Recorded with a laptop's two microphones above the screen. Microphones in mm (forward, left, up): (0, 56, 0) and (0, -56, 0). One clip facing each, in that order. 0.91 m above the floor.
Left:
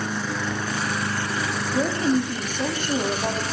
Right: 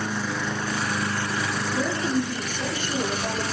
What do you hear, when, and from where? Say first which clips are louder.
1.7 s a woman speaking: left 4 dB; 45° left (ahead or behind), 1.8 m